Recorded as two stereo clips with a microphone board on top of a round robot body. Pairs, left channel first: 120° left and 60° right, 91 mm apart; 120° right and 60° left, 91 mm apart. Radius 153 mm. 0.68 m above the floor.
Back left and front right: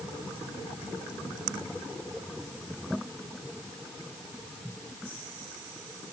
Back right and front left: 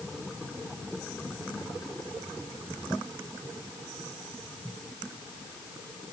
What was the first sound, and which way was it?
Only background noise.